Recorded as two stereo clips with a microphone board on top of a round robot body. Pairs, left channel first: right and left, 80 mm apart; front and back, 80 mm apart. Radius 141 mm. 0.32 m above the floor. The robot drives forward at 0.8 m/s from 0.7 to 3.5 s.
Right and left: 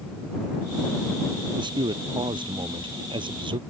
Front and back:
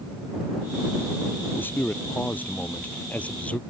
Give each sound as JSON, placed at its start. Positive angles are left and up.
{"t": 1.6, "sound": "a man speaking", "azimuth_deg": 65}